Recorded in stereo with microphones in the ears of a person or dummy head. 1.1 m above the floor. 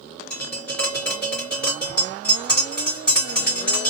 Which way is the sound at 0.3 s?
10° left (ahead or behind).